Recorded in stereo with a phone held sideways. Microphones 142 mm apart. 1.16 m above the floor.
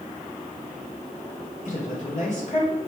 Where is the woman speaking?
55° left (ahead or behind), 4 m.